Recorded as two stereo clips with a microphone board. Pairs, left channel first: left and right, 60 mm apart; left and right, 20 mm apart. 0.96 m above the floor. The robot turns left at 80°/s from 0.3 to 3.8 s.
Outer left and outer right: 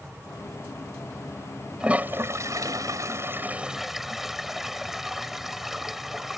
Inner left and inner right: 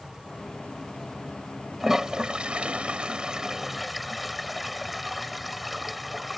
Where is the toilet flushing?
15° right (ahead or behind); by 6.4 s 5° right (ahead or behind).